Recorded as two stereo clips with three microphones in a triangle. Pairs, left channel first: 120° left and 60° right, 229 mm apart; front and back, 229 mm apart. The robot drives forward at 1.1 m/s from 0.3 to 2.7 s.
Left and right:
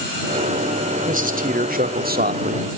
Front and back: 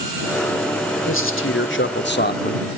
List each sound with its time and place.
1.1 s a man speaking: 10° right, 2.5 m; by 2.7 s 45° right, 0.8 m